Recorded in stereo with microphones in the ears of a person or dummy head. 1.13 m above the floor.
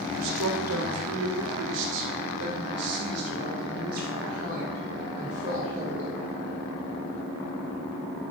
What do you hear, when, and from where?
0.2 s a woman speaking: 65° right (ahead or behind), 1.7 m; by 6.2 s 45° right (ahead or behind), 4 m